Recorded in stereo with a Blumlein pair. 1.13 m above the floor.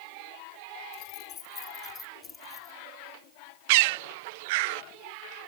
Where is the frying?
I don't hear frying.